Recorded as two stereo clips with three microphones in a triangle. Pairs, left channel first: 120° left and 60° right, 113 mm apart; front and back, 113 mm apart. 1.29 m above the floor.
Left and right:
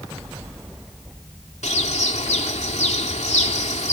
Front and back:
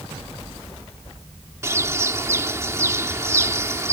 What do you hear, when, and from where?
1.6 s a bird: 115° left